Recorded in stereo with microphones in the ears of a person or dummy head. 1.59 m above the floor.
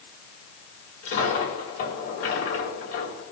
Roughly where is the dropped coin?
Left.